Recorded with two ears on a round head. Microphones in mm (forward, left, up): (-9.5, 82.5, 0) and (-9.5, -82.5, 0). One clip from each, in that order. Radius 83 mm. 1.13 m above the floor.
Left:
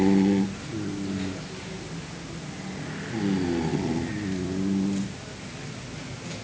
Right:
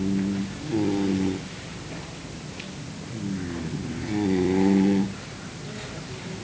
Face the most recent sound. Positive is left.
No sound to turn to.